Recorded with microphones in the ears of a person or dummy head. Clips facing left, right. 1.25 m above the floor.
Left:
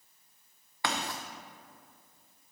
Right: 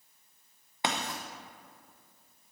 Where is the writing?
20° right (ahead or behind), 0.7 m.